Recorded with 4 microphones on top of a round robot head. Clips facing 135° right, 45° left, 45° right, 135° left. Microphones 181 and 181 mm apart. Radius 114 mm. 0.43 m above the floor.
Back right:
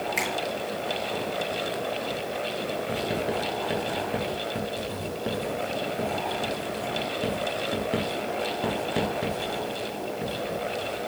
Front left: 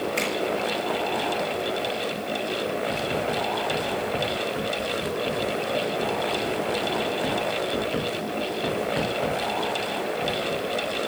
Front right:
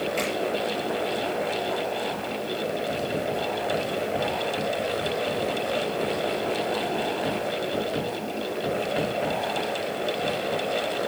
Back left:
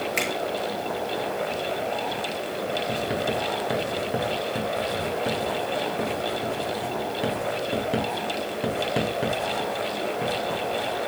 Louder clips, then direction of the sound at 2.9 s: Front left 1 dB, back left 1 dB; 170° left.